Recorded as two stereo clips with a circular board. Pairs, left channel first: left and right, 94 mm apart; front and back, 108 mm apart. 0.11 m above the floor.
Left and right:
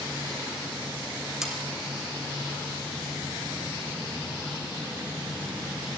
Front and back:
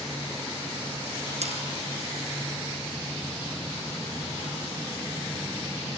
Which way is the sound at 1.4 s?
175° right.